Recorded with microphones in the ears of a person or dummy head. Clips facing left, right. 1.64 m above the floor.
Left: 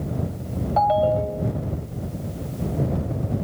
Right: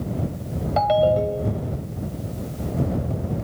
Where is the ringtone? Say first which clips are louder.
Right 2 dB; 40° right (ahead or behind).